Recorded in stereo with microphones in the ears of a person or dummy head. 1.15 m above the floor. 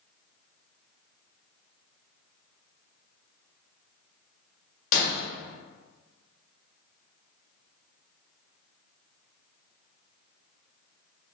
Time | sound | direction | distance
4.9 | breaking glass | 55° left (ahead or behind) | 1.5 m